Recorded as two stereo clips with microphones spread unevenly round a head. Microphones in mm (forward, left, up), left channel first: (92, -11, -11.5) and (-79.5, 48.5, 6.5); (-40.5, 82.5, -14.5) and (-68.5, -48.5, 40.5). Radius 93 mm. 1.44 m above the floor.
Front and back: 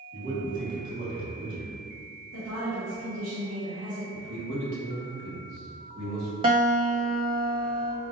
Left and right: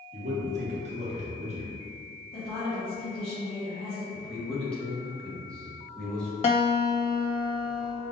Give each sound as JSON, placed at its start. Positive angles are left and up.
{"t": 0.1, "sound": "a man speaking", "azimuth_deg": -130, "distance_m": 1.4}
{"t": 2.3, "sound": "a woman speaking", "azimuth_deg": 125, "distance_m": 2.0}
{"t": 4.1, "sound": "a man speaking", "azimuth_deg": 165, "distance_m": 1.5}
{"t": 6.4, "sound": "a guitar", "azimuth_deg": 130, "distance_m": 1.4}